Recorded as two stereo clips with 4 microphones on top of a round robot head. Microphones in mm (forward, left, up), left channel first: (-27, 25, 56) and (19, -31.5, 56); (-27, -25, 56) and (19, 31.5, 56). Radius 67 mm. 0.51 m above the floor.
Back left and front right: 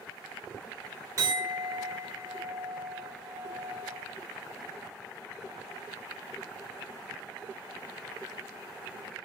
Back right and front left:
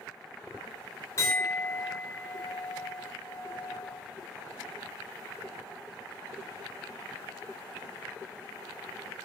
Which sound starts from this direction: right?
A clink, at 1.2 s.